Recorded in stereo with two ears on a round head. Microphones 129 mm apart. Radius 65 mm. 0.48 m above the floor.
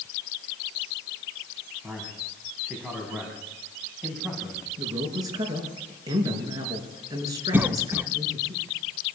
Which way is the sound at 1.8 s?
5° right (ahead or behind).